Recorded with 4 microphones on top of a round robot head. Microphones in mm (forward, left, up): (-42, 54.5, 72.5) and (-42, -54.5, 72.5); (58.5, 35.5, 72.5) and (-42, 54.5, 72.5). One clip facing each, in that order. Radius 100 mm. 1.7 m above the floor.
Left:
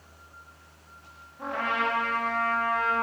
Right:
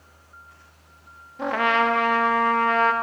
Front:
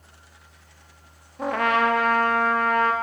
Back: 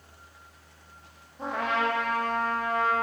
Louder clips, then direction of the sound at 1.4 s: Right 7 dB, front 6 dB; 60° right.